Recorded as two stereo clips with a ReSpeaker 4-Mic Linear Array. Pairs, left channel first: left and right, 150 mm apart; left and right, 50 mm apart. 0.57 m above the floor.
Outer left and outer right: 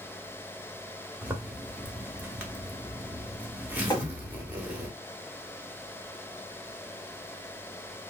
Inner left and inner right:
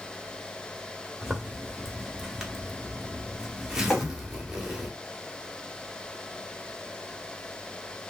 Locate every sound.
1.2 s a zipper: 10° right (ahead or behind), 0.8 m
3.9 s tapping: 25° left (ahead or behind), 1.1 m